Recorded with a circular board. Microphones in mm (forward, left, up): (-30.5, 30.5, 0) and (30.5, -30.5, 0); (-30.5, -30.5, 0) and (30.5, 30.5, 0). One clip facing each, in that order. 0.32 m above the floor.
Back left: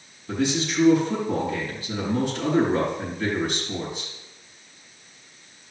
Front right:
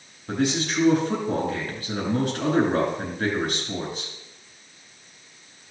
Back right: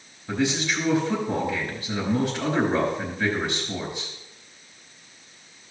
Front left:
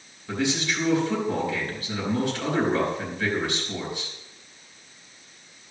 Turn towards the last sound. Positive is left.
turn(degrees=-65)